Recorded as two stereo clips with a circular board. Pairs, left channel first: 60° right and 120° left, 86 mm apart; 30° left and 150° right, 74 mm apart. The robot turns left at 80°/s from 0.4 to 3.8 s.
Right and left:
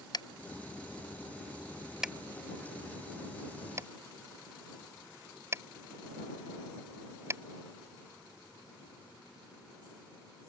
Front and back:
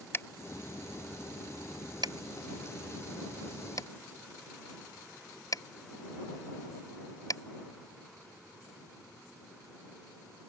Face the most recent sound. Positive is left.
turn(degrees=65)